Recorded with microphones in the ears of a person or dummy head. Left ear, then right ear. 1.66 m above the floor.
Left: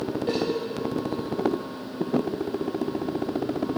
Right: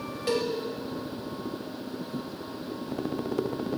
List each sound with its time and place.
0.3 s a cowbell: 30° right (ahead or behind), 1.5 m